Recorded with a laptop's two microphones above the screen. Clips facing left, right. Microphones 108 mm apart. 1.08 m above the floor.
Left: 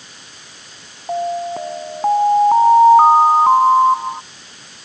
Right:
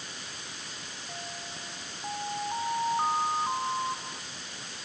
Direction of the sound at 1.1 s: 85° left.